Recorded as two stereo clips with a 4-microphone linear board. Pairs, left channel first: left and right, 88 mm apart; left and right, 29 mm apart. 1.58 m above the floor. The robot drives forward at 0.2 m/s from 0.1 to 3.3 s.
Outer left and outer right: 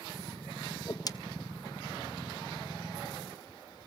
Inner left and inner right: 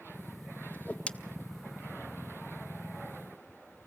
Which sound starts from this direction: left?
A whoosh, at 0.7 s.